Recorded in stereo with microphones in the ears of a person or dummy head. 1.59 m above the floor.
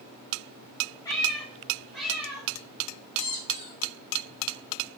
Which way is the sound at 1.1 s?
15° left (ahead or behind).